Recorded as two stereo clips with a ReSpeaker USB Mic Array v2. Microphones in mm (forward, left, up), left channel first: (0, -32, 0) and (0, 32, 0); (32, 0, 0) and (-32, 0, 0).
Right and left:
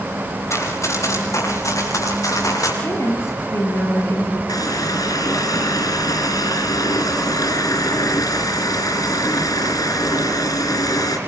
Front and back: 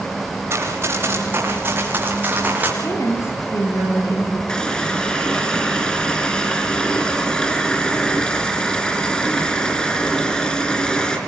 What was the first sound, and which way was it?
Running footsteps, 130° right.